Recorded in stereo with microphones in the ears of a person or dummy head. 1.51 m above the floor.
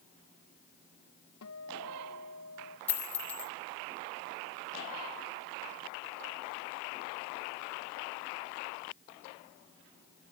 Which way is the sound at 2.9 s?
10° left (ahead or behind).